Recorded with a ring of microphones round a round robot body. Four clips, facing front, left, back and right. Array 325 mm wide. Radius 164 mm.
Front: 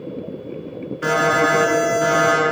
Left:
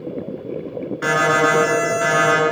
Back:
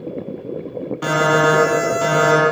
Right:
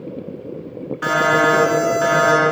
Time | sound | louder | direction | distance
1.0 | an alarm | right 1 dB, back 2 dB | 155° left | 3.5 m